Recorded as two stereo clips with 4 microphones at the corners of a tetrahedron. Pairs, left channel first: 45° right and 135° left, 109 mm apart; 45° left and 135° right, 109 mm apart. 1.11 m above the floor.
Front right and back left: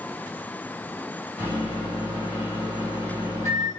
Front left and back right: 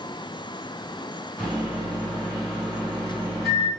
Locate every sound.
1.4 s a microwave: 45° right, 1.5 m